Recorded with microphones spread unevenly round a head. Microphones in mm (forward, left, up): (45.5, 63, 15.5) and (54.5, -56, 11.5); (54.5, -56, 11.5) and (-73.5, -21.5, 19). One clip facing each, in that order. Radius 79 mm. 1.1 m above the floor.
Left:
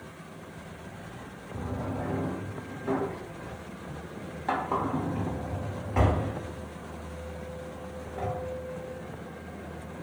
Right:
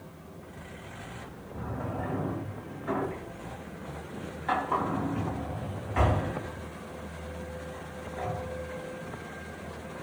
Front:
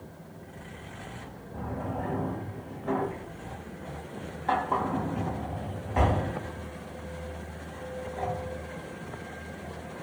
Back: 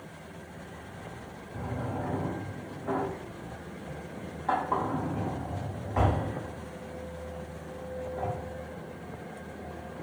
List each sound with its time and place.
1.5 s a drawer: 60° left, 0.9 m